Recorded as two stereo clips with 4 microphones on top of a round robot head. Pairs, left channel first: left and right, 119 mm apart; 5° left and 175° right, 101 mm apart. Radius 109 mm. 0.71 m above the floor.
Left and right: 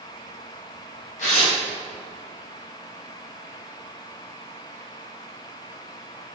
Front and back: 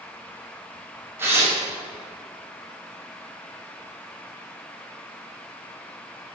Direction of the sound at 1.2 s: 115° left.